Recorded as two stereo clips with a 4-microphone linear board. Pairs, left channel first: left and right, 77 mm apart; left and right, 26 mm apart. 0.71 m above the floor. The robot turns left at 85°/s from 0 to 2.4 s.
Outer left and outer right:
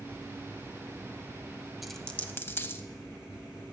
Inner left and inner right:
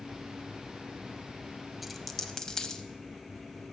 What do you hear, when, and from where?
1.8 s a dropped coin: 5° right (ahead or behind), 0.6 m; by 2.8 s 30° left (ahead or behind), 0.6 m